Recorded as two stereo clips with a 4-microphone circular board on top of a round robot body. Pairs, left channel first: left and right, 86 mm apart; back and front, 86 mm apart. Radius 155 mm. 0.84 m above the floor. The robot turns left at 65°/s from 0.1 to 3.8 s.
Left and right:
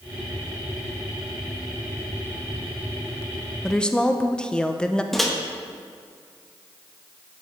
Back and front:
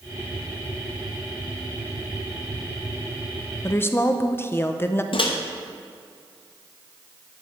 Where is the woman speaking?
170° left, 0.8 m; by 5.0 s 160° left, 0.8 m.